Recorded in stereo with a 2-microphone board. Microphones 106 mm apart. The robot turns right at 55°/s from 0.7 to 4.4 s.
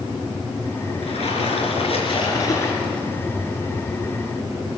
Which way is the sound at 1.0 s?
65° left.